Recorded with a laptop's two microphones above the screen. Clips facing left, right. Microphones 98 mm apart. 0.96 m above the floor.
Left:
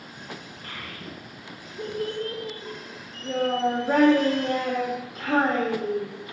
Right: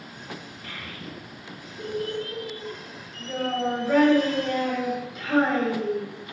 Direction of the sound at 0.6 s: 45° left (ahead or behind).